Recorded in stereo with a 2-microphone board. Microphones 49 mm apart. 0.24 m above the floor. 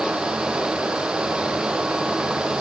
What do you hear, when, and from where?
Only background noise.